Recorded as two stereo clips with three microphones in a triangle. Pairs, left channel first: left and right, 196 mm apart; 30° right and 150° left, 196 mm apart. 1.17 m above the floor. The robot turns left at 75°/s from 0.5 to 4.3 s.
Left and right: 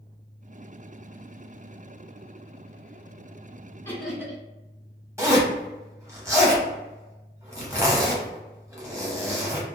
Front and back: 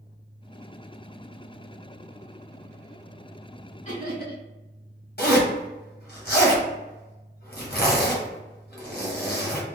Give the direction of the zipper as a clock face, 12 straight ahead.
1 o'clock.